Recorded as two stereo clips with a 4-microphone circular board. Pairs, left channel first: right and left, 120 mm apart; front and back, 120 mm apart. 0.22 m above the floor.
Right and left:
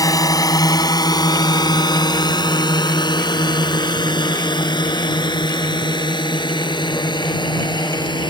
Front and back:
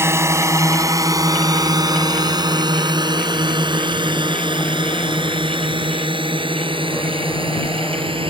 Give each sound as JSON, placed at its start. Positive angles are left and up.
{"t": 0.0, "sound": "a drone", "azimuth_deg": -125}